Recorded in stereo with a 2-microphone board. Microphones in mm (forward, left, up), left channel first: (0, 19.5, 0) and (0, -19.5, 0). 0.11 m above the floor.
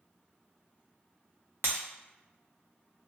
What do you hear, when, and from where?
1.6 s breaking glass: 65° right (ahead or behind), 0.7 m